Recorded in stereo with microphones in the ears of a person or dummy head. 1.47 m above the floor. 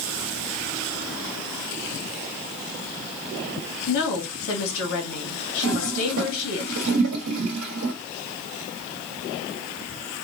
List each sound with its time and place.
3.9 s a woman speaking: 60° left (ahead or behind), 1.1 m
5.6 s a toilet flushing: 85° right, 1.1 m